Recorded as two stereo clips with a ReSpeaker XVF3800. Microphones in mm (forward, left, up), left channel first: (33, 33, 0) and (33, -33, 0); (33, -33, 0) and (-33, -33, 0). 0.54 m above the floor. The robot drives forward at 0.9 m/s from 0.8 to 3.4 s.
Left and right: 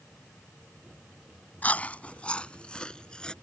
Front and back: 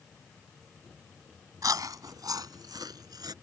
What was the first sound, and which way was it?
Chewing, 155° left.